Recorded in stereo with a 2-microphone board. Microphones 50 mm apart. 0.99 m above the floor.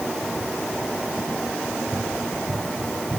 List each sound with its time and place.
1.6 s running footsteps: 35° right (ahead or behind), 8 m